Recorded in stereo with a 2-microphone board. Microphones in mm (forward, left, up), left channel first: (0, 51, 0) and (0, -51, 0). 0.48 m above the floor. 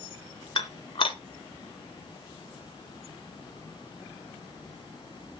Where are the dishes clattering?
55° left (ahead or behind), 1.1 m.